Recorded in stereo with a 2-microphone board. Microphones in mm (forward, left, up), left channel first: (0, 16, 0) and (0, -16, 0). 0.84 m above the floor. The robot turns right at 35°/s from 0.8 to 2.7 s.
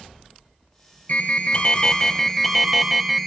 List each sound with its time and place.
1.1 s an alarm: 130° left, 2.5 m; by 3.3 s 175° right, 2.5 m